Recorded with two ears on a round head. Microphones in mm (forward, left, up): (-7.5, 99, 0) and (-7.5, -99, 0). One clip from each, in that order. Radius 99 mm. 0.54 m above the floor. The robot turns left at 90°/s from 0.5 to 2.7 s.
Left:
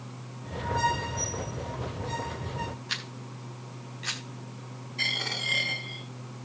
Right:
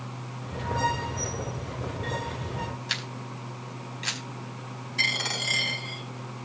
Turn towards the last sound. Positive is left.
turn(degrees=-40)  # may be behind; listen again after turning